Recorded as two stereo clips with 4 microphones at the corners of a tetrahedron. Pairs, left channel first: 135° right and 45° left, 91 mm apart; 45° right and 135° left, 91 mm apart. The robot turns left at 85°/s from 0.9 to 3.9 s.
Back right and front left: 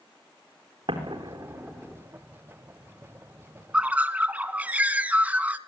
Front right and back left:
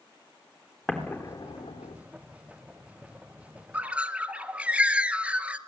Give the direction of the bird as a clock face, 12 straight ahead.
9 o'clock.